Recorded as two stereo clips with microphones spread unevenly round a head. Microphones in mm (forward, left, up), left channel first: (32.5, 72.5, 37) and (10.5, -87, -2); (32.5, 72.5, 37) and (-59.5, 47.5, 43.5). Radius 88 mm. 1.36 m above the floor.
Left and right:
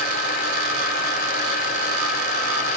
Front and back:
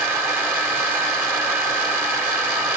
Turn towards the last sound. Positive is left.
turn(degrees=130)